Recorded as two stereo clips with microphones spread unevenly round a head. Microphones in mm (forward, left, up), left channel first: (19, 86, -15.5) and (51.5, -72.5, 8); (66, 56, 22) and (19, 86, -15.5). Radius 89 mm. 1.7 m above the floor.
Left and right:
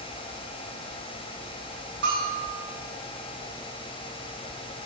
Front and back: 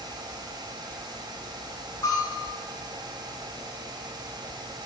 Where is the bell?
75° right, 5.5 m.